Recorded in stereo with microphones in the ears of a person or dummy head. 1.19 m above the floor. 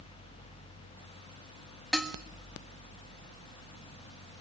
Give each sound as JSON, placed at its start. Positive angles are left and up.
{"t": 1.9, "sound": "dishes clattering", "side_deg": 0, "distance_m": 1.2}